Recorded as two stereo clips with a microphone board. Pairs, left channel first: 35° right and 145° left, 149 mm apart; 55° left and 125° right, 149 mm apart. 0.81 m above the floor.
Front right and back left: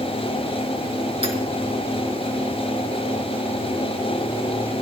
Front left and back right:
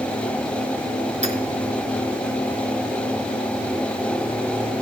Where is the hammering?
165° right, 4.5 m.